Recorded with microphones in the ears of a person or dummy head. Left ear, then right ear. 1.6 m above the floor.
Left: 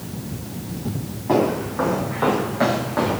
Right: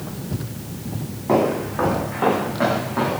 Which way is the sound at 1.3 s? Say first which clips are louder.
Right 1 dB; 15° right (ahead or behind).